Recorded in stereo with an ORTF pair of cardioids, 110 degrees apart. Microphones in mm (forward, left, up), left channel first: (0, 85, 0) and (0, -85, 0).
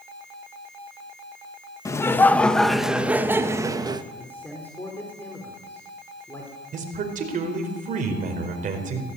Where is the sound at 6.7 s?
50° right, 4.5 m.